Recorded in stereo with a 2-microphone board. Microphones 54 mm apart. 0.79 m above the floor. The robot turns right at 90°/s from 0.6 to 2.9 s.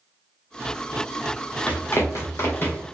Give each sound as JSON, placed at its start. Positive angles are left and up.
{"t": 1.7, "sound": "running footsteps", "side_deg": 20, "distance_m": 1.3}